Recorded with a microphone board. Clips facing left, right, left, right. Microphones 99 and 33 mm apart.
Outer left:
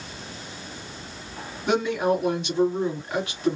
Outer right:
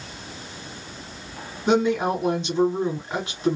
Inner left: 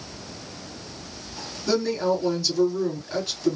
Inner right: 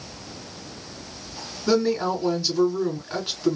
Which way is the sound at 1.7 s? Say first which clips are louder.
Outer right 2 dB, inner right 1 dB; 25° right (ahead or behind).